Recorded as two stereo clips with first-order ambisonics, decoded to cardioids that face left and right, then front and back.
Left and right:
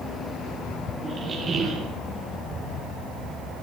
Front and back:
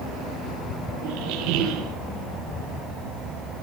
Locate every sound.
1.0 s a squeak: 160° right, 4.5 m